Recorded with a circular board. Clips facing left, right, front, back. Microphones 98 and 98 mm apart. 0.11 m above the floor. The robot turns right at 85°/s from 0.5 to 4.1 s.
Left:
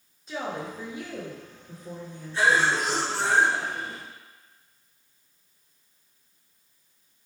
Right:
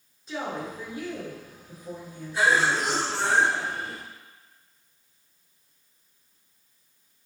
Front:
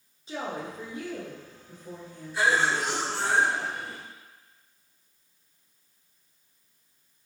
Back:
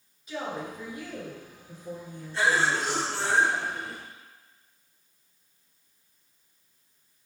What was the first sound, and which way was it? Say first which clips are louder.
A woman speaking: even, even; straight ahead.